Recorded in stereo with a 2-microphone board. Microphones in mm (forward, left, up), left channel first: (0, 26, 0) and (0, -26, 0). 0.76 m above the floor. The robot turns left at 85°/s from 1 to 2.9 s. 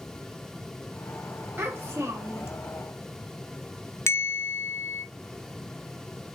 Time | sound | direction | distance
1.6 | a child speaking | 60° right | 0.8 m
4.1 | a bell | 65° left (ahead or behind) | 0.7 m